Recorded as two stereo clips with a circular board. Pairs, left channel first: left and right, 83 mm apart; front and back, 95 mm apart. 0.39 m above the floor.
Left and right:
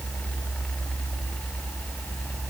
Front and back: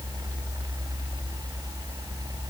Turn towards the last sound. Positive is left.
No sound to turn to.